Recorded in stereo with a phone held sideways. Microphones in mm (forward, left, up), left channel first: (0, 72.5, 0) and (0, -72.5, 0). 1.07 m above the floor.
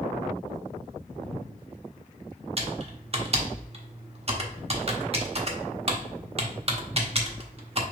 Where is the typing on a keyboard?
45° right (ahead or behind), 0.8 m.